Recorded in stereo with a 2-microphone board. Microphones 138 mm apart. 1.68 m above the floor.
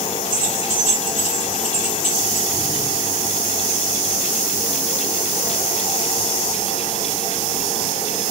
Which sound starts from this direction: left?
Keys jangling, at 0.3 s.